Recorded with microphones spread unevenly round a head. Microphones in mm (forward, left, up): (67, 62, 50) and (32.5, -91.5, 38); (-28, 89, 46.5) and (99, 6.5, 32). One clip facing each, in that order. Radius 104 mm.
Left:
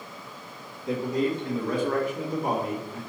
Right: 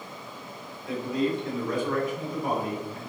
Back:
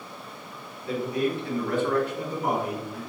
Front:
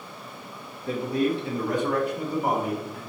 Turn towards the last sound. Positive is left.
turn(degrees=55)